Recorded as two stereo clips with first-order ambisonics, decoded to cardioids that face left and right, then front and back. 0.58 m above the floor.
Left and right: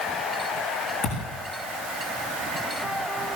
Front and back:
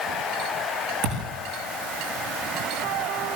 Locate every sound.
1.0 s a thud: 160° left, 7.5 m